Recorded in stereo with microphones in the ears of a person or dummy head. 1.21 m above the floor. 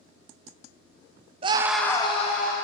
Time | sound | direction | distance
1.4 | a scream | 25° right (ahead or behind) | 0.6 m